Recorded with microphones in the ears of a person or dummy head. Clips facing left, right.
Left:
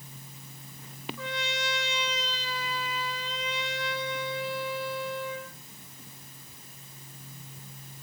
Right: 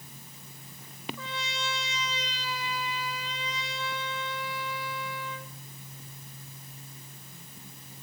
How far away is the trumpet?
About 2.5 m.